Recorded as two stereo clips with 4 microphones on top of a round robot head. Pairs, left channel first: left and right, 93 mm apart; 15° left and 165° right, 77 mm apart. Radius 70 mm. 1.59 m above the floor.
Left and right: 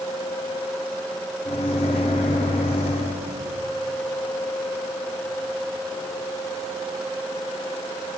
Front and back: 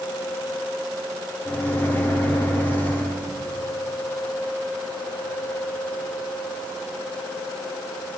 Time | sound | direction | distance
1.4 | a microwave | 80° left | 0.7 m